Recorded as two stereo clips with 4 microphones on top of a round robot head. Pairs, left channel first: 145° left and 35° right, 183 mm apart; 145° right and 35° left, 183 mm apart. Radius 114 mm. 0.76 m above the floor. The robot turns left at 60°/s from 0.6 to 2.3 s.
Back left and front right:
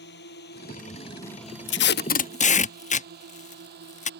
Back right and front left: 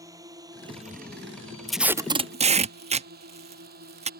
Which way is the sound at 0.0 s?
110° left.